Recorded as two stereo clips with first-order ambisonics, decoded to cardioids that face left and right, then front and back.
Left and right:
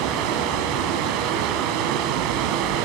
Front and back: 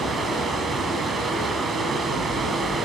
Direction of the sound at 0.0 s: 110° right.